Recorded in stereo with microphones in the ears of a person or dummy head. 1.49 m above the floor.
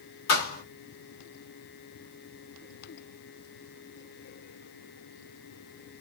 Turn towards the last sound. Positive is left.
turn(degrees=50)  # may be behind; listen again after turning